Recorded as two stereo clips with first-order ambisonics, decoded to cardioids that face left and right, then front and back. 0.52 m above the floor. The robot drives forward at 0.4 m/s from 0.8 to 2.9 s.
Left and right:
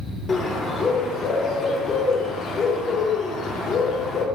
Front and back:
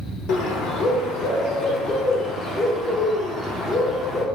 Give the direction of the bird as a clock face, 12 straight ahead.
11 o'clock.